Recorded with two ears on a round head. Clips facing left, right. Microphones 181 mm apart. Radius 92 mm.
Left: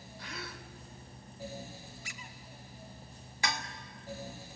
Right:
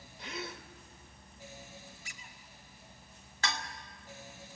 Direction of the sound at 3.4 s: 10° left (ahead or behind).